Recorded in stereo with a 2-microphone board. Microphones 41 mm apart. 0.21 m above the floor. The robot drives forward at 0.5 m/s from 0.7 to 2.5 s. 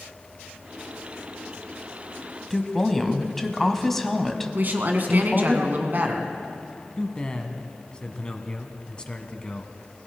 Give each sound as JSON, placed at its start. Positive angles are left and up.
{"t": 2.5, "sound": "a woman speaking", "side_deg": 5, "distance_m": 1.3}
{"t": 4.5, "sound": "a woman speaking", "side_deg": -50, "distance_m": 1.9}
{"t": 7.0, "sound": "a man speaking", "side_deg": 25, "distance_m": 1.4}